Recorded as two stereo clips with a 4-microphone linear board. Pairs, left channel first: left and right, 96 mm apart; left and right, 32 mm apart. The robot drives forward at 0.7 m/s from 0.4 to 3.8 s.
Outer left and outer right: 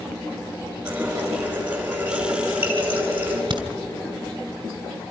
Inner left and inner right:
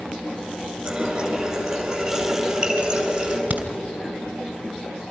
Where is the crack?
50° right (ahead or behind), 2.5 m; by 3.7 s 55° right (ahead or behind), 2.5 m.